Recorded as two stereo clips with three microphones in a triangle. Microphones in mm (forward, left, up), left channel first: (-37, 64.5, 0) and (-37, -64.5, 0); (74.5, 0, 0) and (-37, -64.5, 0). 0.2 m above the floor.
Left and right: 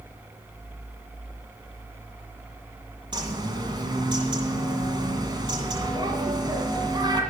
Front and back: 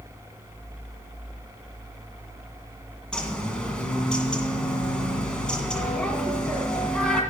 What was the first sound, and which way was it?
A bird, 50° right.